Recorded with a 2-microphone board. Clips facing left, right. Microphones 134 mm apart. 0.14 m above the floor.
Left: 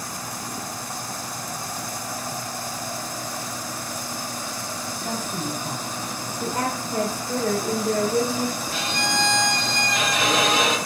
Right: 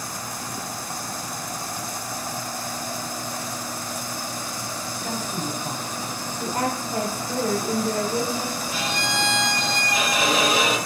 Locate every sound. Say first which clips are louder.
5.0 s a woman speaking: even; 15° right (ahead or behind), 7.5 m
6.4 s a woman speaking: right 1 dB; 5° right (ahead or behind), 6.5 m
8.7 s a violin: left 1 dB; 10° right (ahead or behind), 7.5 m